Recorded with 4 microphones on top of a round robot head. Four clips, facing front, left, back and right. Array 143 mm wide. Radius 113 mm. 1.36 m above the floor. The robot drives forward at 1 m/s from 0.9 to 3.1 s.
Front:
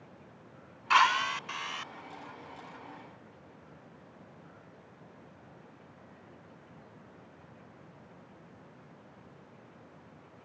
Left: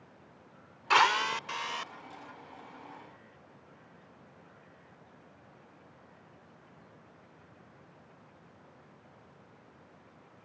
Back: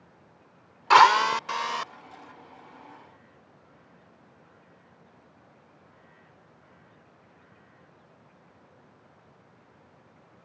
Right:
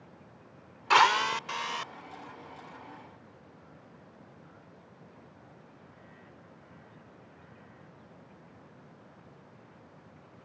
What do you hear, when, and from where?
0.9 s a drill: straight behind